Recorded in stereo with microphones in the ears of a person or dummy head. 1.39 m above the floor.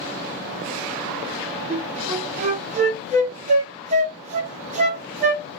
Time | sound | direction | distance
1.7 | a flute | 35° right (ahead or behind) | 0.7 m